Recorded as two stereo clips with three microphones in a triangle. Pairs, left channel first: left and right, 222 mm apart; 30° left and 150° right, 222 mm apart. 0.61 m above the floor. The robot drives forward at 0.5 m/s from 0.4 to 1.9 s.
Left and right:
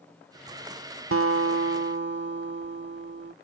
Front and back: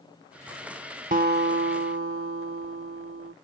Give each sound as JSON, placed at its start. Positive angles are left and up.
{"t": 1.1, "sound": "a guitar", "azimuth_deg": -95}